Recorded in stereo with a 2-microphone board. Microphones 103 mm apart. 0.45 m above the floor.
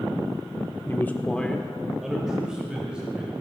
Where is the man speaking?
20° left (ahead or behind), 0.8 m; by 3.3 s 10° right (ahead or behind), 3 m.